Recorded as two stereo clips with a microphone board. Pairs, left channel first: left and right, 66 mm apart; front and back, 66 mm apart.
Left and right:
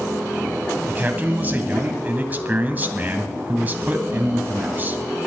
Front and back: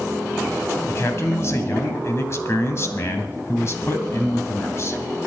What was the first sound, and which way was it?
A man speaking, 35° right.